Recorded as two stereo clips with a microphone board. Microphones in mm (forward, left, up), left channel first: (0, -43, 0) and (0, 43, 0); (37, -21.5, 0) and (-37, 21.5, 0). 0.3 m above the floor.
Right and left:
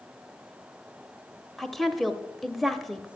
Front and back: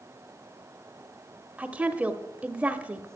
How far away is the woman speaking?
About 0.8 m.